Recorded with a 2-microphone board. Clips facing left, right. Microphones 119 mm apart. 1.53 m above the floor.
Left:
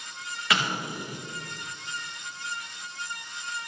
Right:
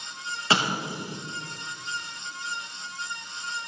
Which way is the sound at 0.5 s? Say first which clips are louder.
Right 3 dB; 30° right (ahead or behind).